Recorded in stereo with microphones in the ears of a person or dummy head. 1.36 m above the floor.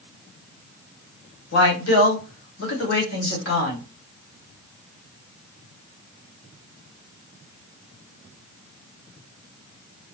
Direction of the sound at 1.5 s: 70° left (ahead or behind).